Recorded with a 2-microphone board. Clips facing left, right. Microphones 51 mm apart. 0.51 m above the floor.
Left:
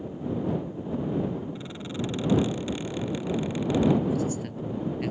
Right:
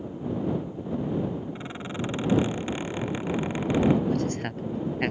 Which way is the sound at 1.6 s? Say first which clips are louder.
Even; 30° right (ahead or behind).